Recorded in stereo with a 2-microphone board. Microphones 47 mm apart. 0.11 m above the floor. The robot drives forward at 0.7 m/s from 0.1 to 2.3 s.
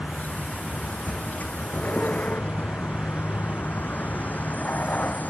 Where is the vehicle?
25° left (ahead or behind); by 5.3 s 35° left (ahead or behind).